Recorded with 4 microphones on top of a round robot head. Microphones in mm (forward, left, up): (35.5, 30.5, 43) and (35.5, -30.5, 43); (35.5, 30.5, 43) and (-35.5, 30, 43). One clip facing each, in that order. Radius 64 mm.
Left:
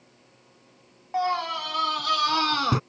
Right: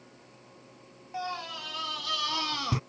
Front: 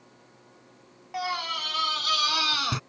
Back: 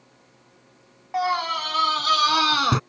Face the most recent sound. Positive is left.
turn(degrees=135)